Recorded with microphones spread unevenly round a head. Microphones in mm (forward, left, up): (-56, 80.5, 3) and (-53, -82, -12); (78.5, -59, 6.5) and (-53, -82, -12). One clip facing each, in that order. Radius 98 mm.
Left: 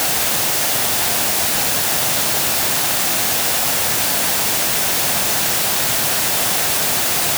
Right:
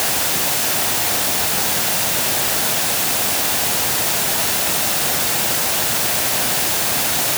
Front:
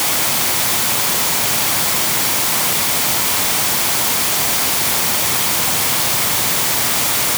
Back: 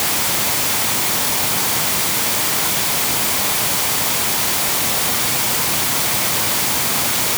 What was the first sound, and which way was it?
Only background noise.